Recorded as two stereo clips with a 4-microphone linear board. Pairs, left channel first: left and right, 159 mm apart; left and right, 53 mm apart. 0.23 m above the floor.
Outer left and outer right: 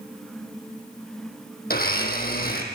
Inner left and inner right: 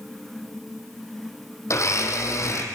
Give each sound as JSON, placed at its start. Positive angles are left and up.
{"t": 1.7, "sound": "a blender", "side_deg": 70, "distance_m": 4.5}